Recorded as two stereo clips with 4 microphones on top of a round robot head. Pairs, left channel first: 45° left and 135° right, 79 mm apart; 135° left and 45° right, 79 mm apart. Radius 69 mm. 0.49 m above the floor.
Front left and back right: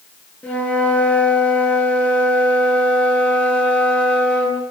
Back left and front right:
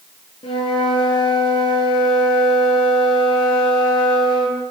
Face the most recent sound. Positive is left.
turn(degrees=120)